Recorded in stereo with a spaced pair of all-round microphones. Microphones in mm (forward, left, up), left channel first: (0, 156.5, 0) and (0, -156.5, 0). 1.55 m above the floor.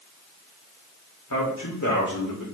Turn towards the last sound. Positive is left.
turn(degrees=75)  # may be behind; listen again after turning